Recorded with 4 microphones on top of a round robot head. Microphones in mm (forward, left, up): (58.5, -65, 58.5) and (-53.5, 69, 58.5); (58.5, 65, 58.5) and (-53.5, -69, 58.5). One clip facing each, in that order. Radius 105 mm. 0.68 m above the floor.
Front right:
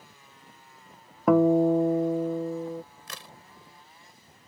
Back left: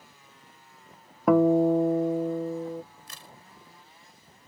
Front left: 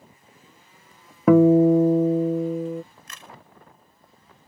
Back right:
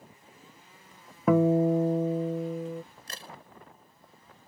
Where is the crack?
75° right.